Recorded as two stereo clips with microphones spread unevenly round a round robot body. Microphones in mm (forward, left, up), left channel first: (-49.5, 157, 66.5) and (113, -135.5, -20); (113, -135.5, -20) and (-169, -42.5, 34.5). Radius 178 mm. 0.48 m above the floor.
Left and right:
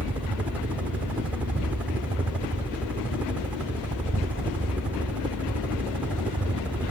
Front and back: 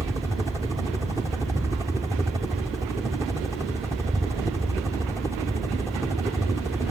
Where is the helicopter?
110° right.